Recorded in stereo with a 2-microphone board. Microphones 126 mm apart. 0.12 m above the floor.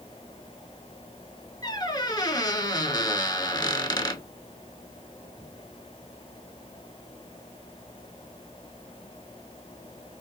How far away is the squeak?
About 0.5 m.